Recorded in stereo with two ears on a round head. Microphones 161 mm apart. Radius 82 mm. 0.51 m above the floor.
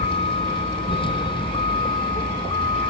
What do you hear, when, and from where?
0.0 s a vehicle: 30° left (ahead or behind); by 2.9 s 25° left (ahead or behind)